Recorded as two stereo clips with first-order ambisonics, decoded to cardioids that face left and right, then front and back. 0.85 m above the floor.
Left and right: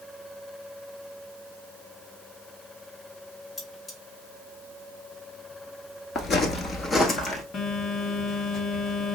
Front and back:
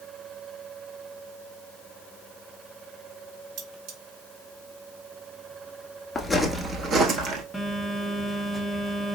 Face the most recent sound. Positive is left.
turn(degrees=95)